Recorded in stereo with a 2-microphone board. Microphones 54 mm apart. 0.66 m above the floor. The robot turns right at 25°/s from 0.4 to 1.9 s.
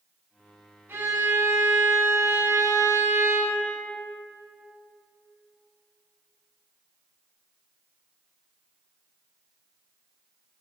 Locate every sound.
0.9 s a violin: 35° right (ahead or behind), 3.5 m; by 3.6 s 60° right (ahead or behind), 3.5 m